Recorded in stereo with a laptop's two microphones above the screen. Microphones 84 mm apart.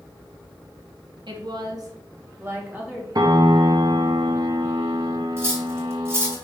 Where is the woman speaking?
60° right (ahead or behind), 1.9 m; by 3.0 s 10° right (ahead or behind), 2.5 m.